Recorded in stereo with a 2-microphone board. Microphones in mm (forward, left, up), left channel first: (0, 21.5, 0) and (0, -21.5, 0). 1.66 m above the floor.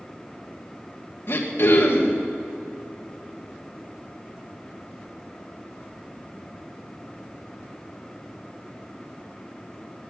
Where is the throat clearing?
60° left (ahead or behind), 1.6 m.